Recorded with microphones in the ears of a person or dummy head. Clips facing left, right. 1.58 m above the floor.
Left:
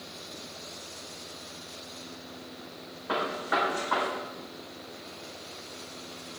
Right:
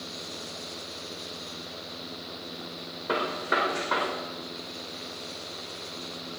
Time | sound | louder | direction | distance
3.1 | a gunshot | right 1 dB | 50° right (ahead or behind) | 4 m